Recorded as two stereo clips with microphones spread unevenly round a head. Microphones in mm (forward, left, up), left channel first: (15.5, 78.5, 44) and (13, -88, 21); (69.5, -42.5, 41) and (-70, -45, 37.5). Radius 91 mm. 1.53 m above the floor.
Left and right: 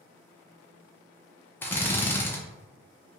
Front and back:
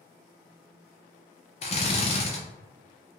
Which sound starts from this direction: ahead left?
A drill, at 1.6 s.